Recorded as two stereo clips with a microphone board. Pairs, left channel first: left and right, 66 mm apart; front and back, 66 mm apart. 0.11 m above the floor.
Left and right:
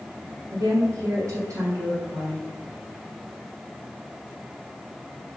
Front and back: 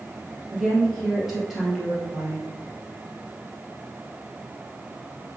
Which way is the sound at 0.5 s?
95° right.